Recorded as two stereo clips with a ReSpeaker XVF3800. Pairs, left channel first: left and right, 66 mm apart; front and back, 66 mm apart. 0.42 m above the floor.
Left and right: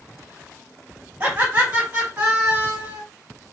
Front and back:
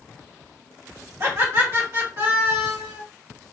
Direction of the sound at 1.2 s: 145° right.